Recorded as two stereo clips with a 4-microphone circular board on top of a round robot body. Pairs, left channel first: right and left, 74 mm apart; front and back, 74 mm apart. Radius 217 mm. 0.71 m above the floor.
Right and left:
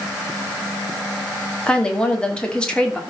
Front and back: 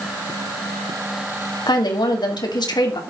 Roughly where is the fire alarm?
I don't hear a fire alarm.